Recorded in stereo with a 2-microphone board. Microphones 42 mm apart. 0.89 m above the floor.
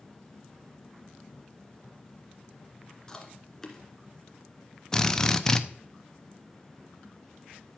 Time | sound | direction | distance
3.1 | chewing | 15° left (ahead or behind) | 1.7 m
4.9 | a drill | 15° left (ahead or behind) | 0.6 m